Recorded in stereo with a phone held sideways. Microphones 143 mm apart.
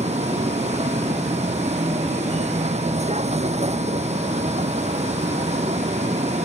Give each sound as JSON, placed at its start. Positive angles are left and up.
{"t": 0.0, "sound": "a vehicle", "side_deg": -50}